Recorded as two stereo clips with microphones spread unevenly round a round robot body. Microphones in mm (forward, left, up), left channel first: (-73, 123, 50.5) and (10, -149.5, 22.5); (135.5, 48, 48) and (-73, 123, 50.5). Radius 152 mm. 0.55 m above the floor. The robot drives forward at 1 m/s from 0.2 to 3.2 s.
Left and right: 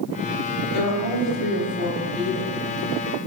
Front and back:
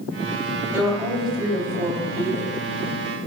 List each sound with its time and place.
0.7 s a woman speaking: 80° left, 3 m; by 2.5 s 115° left, 3 m